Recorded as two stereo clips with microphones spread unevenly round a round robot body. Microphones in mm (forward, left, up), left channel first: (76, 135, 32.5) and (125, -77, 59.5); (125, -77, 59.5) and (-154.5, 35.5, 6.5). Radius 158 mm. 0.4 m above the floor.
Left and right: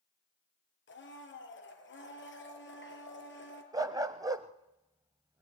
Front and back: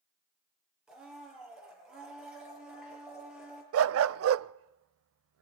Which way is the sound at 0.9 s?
70° left.